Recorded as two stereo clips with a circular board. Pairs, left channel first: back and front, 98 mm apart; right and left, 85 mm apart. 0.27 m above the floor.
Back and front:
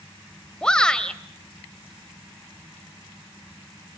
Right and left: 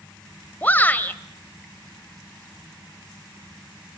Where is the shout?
115° right, 1.3 m.